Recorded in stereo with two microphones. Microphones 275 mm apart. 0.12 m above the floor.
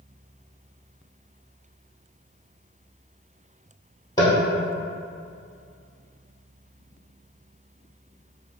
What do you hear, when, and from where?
4.2 s tapping: 15° left (ahead or behind), 1.2 m